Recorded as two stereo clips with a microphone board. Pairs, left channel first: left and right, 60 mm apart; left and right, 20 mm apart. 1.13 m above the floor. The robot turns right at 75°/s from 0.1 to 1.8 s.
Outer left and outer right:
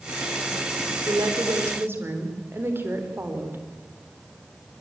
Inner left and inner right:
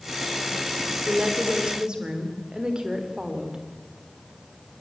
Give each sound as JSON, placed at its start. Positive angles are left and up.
{"t": 1.1, "sound": "a woman speaking", "azimuth_deg": -95, "distance_m": 3.5}